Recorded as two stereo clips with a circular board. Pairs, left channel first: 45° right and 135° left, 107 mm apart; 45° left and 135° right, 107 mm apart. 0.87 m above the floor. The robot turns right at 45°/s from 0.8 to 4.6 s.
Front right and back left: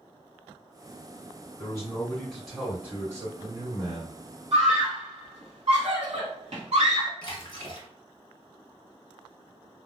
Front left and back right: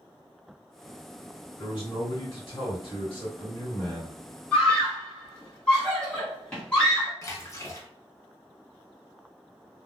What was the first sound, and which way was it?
A man speaking, 5° left.